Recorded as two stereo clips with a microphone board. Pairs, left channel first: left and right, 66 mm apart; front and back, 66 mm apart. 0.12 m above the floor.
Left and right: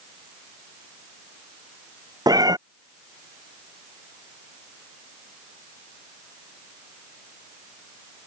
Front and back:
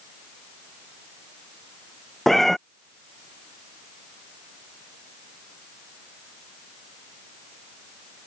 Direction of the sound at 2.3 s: 85° right.